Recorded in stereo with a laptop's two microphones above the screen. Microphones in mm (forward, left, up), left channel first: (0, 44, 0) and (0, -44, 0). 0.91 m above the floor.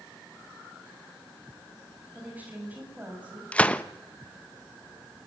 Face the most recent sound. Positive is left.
turn(degrees=15)  # may be behind; listen again after turning